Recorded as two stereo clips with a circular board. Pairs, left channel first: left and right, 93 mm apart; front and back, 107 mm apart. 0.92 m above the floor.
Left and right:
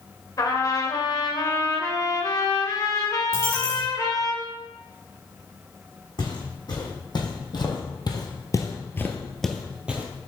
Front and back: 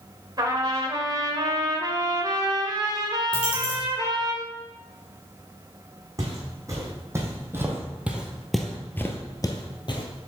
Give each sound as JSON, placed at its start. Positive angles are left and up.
{"t": 0.4, "sound": "a trumpet", "azimuth_deg": 135, "distance_m": 1.1}
{"t": 3.3, "sound": "a dropped coin", "azimuth_deg": 30, "distance_m": 2.5}
{"t": 6.2, "sound": "footsteps", "azimuth_deg": 125, "distance_m": 3.0}